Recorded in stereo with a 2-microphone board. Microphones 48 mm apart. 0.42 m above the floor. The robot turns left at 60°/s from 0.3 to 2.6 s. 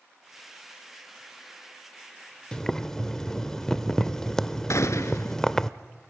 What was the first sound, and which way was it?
Boiling, 15° left (ahead or behind).